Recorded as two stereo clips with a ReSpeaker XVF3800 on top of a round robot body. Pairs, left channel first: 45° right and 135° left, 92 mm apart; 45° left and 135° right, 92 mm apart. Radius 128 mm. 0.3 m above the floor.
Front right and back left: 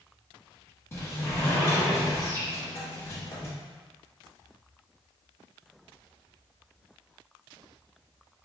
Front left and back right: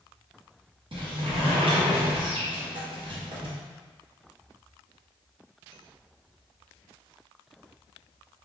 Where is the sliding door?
105° right, 0.9 m.